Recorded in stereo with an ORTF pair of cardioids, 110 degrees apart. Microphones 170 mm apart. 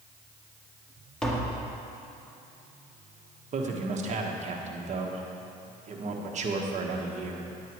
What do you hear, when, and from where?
1.2 s tapping: 5° left, 1.6 m
3.5 s a man speaking: 40° right, 1.5 m